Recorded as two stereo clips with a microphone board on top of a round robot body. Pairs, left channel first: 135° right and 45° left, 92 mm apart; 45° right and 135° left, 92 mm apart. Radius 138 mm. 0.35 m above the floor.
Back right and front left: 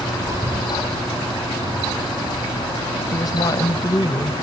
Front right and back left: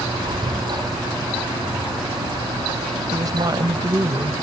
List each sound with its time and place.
0.2 s breathing: 100° left
3.1 s a woman speaking: straight behind